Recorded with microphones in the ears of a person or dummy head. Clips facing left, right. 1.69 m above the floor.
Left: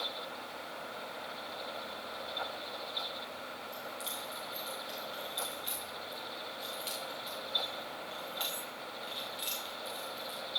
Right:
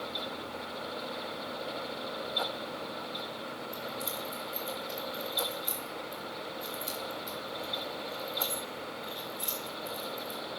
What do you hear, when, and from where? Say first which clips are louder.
3.7 s keys jangling: right 5 dB; centre (ahead or behind), 0.8 m